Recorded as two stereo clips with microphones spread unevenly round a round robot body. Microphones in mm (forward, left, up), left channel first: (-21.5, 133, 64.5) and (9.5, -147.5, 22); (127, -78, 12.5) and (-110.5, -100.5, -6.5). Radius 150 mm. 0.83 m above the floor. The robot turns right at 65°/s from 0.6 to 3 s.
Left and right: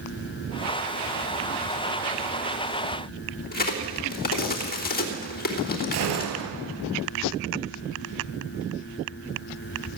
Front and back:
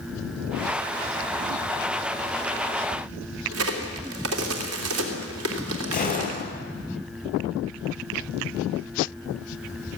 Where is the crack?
155° left, 3 m.